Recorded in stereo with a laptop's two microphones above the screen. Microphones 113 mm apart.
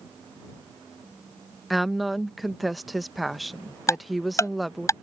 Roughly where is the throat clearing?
I don't hear throat clearing.